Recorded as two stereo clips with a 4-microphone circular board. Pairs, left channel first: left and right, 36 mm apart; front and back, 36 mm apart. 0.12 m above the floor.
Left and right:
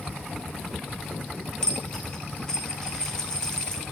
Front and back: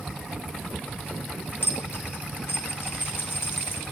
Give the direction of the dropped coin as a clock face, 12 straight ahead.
11 o'clock.